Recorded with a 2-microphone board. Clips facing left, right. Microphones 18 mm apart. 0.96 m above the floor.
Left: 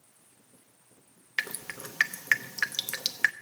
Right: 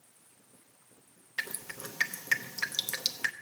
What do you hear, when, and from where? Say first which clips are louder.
1.4 s dripping: left 4 dB; 45° left (ahead or behind), 0.8 m